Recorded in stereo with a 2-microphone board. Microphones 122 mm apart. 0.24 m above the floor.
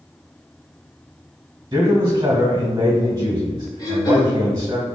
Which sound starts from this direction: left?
Throat clearing, at 3.8 s.